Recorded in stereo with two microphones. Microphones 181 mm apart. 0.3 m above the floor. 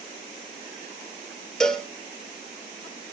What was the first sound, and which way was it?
A cowbell, 5° left (ahead or behind).